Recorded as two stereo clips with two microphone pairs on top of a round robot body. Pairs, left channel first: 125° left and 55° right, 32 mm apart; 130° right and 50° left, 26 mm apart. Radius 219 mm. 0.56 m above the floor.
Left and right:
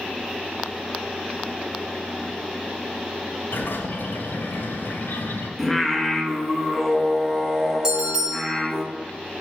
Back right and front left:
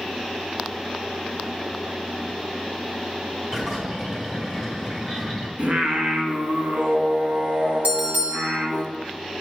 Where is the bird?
115° left, 1.8 m.